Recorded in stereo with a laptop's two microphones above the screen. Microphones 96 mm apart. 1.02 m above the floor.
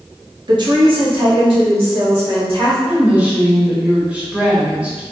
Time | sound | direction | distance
0.5 | a woman speaking | 45° right (ahead or behind) | 0.8 m
2.9 | a woman speaking | 15° right (ahead or behind) | 1.2 m